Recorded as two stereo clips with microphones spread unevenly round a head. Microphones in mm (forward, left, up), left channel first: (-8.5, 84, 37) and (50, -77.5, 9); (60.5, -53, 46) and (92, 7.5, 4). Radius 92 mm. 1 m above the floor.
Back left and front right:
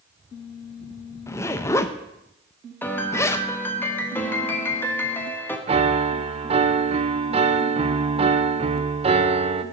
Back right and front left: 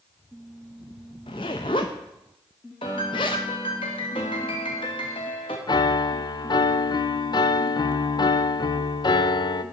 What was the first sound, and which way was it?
A zipper, 170° right.